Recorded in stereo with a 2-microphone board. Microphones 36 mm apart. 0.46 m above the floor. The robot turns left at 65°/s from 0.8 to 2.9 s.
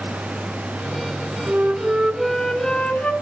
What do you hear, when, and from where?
1.5 s a flute: 125° right, 1.7 m; by 3.1 s 145° left, 1.7 m